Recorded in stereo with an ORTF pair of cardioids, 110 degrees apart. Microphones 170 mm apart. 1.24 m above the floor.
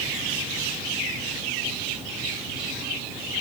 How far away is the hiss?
No hiss in this recording.